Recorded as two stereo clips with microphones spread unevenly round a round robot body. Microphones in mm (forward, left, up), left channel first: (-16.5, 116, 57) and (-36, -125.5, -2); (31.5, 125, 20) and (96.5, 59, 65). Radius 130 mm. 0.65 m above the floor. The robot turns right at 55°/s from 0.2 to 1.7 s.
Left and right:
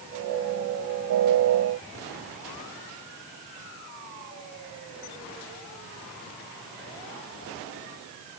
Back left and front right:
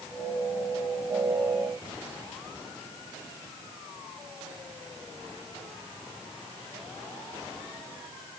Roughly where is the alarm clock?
No alarm clock in this recording.